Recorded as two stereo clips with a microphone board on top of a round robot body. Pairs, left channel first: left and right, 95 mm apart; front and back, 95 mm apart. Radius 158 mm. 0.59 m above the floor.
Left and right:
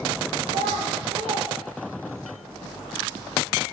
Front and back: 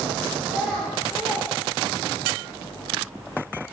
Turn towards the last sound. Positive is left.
turn(degrees=-90)